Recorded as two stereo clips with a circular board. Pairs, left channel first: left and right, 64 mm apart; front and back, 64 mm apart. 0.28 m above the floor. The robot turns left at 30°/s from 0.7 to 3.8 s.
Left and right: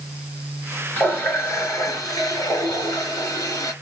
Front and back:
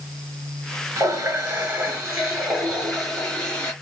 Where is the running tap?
155° left, 3 m; by 3.7 s 70° left, 3 m.